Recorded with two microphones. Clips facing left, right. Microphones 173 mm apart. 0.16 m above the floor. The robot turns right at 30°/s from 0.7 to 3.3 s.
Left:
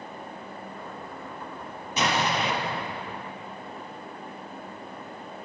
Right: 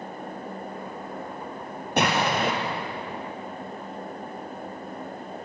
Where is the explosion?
60° right (ahead or behind), 3 m; by 2.5 s 50° right (ahead or behind), 3 m.